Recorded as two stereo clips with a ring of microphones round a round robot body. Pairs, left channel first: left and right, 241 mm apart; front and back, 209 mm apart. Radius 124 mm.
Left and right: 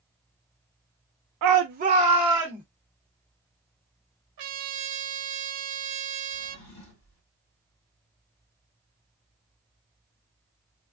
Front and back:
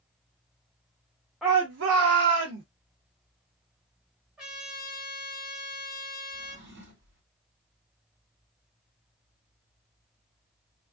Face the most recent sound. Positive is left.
turn(degrees=140)